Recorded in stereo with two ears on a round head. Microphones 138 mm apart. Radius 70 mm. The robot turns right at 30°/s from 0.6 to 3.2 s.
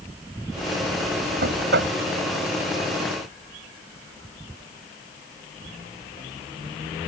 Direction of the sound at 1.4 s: 70° right (ahead or behind).